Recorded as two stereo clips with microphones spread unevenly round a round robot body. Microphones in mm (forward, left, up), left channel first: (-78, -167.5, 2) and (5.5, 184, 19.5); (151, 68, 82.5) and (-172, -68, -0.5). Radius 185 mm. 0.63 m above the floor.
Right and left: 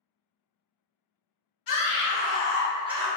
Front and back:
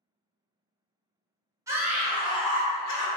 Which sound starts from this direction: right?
A scream, at 1.7 s.